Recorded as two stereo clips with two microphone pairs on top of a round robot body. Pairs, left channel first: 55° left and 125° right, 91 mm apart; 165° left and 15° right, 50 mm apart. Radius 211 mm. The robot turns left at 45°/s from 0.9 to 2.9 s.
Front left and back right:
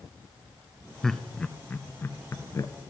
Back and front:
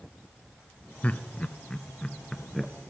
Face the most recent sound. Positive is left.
turn(degrees=70)